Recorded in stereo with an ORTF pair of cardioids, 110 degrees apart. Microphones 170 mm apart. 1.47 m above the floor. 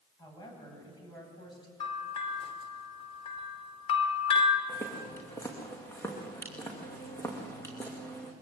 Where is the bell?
35° left, 3.5 m.